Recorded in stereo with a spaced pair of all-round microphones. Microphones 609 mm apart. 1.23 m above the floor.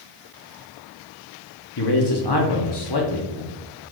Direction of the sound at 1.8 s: 40° left (ahead or behind).